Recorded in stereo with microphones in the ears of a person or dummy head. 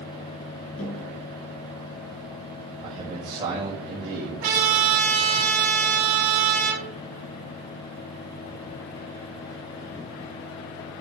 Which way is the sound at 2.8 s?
30° right (ahead or behind).